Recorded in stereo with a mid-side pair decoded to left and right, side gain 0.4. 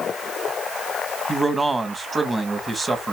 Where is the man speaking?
25° right, 1.9 m.